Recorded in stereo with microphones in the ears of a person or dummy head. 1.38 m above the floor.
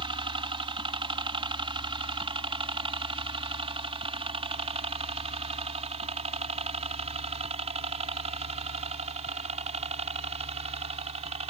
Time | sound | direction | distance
0.0 | a helicopter | 25° right (ahead or behind) | ?